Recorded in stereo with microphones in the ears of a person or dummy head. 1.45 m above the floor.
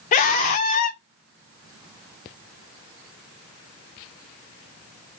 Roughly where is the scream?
Left.